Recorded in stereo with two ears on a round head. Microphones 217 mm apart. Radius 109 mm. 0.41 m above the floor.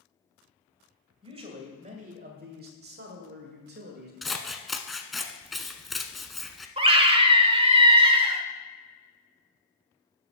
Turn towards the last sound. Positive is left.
turn(degrees=-25)  # may be behind; listen again after turning